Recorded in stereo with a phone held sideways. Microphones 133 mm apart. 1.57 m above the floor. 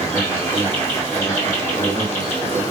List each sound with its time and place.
0.0 s an insect: 20° left (ahead or behind), 1.9 m